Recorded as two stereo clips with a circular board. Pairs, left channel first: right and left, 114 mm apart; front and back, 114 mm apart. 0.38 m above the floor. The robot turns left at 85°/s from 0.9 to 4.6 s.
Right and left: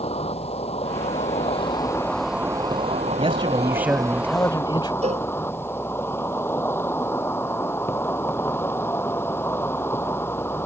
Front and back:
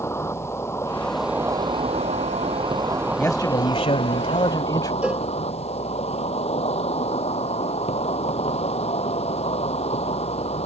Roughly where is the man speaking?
Left.